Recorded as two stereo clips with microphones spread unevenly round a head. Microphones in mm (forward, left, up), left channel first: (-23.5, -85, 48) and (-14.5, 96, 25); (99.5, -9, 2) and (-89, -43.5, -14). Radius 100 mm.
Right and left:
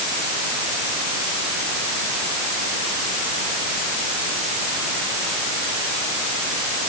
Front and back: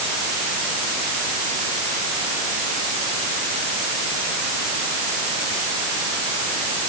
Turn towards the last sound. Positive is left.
No sound to turn to.